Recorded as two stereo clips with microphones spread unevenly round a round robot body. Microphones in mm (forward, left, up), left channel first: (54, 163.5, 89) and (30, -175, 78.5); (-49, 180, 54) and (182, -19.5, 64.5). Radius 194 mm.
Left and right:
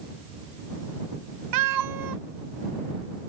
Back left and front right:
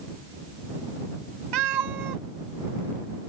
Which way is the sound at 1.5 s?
65° right.